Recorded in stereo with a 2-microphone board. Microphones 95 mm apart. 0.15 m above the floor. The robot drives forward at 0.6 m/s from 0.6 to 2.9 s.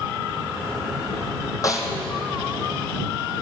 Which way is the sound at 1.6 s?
35° left (ahead or behind).